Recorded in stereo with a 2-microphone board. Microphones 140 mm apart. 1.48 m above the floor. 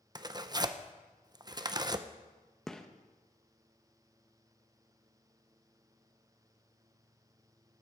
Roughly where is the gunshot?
Centre.